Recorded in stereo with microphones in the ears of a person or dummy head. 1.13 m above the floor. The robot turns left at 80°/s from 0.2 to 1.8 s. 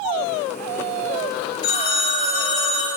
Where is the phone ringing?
65° left (ahead or behind), 1.2 m; by 2.9 s 50° left (ahead or behind), 1.2 m.